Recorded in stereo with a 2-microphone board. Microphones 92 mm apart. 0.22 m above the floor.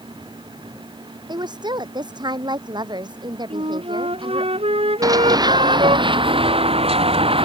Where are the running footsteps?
40° right (ahead or behind); by 7.5 s 70° right (ahead or behind).